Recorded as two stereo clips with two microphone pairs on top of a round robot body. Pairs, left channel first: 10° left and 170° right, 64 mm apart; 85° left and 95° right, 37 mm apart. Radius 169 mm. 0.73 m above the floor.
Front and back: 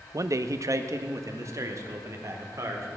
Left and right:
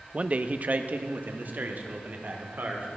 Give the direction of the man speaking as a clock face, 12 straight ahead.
5 o'clock.